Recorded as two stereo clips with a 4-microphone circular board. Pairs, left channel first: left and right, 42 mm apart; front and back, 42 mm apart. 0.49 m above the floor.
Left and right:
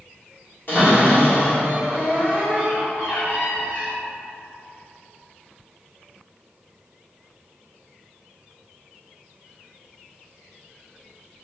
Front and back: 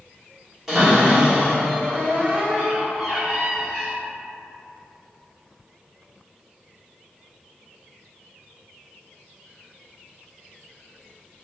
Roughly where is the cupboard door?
Left.